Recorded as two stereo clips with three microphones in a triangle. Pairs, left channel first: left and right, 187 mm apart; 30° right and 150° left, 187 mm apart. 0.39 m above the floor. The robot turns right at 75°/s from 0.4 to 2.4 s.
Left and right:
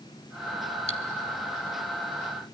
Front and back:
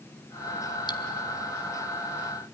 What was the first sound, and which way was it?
Cutlery clinking, 35° left.